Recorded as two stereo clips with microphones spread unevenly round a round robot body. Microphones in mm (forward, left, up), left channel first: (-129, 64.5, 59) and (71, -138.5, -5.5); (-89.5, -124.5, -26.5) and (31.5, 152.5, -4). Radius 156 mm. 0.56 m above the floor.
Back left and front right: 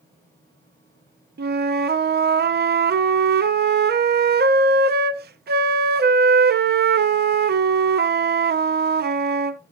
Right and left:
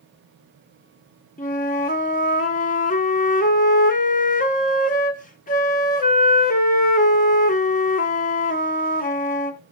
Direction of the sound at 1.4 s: 60° right.